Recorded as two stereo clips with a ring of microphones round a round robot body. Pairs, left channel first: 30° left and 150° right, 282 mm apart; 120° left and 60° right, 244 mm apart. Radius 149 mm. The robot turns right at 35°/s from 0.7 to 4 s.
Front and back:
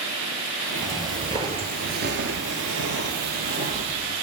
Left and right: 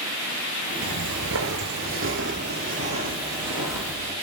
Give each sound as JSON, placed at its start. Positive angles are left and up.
{"t": 0.8, "sound": "footsteps", "azimuth_deg": -75, "distance_m": 0.8}